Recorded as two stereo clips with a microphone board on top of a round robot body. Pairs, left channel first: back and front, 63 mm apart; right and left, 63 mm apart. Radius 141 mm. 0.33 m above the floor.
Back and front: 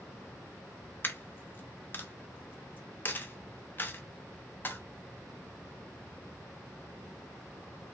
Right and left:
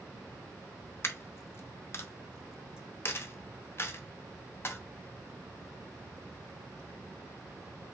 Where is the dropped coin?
130° right, 0.6 m.